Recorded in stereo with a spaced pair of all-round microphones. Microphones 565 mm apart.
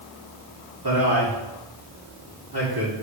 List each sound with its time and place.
0.8 s a man speaking: 40° right (ahead or behind), 3 m